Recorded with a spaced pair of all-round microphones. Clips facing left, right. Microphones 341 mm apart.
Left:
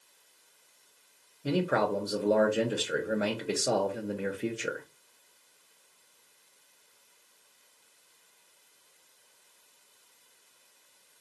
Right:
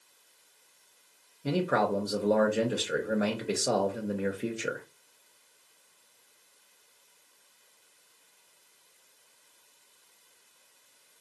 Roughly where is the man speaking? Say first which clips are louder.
Even; centre.